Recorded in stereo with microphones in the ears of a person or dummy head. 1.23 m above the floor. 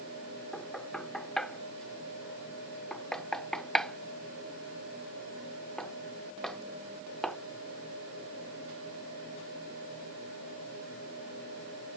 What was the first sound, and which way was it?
Knocking, 5° left (ahead or behind).